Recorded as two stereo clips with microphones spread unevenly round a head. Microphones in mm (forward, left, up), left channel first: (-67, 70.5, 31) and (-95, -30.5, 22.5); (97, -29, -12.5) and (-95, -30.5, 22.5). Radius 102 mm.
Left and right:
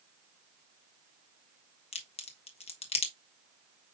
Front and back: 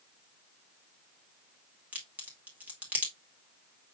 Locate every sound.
1.9 s a crack: 95° left, 1.2 m